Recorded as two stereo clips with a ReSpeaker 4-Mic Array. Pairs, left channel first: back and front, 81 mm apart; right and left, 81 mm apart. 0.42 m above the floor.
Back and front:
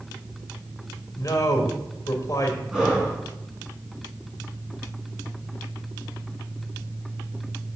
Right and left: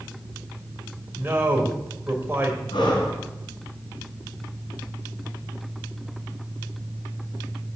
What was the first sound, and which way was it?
A man speaking, 155° left.